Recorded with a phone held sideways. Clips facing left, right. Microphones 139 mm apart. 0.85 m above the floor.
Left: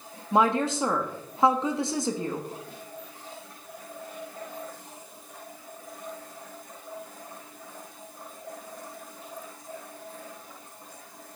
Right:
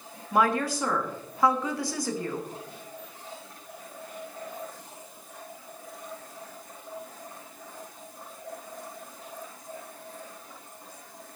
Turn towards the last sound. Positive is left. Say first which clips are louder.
# left 2 dB
turn(degrees=25)  # may be behind; listen again after turning